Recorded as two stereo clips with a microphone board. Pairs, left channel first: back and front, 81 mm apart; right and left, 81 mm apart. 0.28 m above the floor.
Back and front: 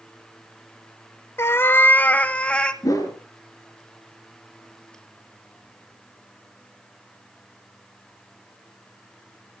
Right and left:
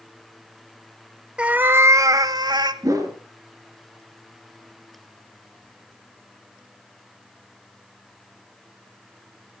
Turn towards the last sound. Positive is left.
turn(degrees=135)